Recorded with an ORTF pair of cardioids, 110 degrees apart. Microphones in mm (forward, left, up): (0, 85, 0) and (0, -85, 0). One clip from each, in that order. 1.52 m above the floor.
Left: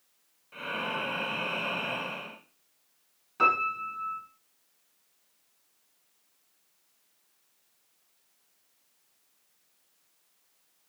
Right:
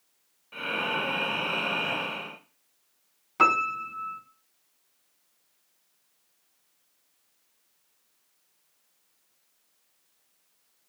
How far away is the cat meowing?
I don't hear a cat meowing.